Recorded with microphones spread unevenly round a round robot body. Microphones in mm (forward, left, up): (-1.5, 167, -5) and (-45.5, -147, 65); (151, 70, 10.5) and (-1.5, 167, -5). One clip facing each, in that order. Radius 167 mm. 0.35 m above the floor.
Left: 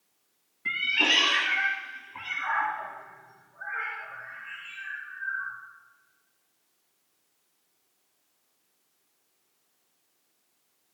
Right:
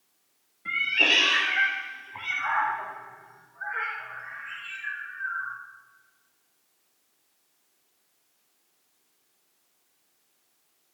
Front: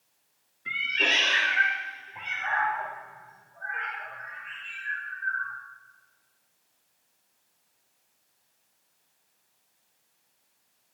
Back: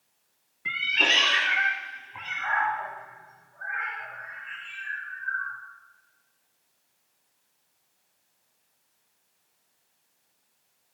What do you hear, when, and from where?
0.7 s a cat meowing: 140° left, 1.0 m; by 5.5 s 170° right, 3 m